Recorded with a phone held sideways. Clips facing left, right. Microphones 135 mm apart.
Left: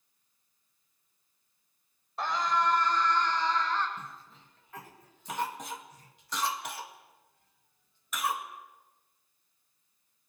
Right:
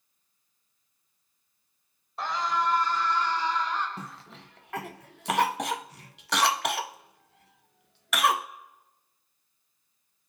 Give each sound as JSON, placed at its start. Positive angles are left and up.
{"t": 2.2, "sound": "a scream", "side_deg": 0, "distance_m": 8.5}
{"t": 4.0, "sound": "a cough", "side_deg": -75, "distance_m": 0.7}